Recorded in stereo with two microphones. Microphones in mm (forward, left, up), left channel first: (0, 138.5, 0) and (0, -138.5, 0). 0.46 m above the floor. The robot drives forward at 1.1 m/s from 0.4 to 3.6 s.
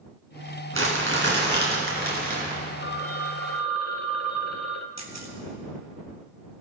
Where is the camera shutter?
70° right (ahead or behind), 2.5 m.